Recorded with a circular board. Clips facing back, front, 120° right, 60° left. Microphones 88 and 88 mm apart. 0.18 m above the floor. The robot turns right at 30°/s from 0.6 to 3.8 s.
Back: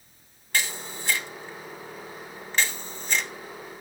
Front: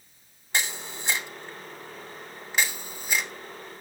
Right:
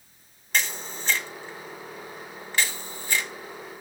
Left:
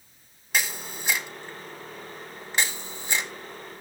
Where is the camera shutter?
10° right, 0.8 m; by 3.3 s 75° left, 0.8 m.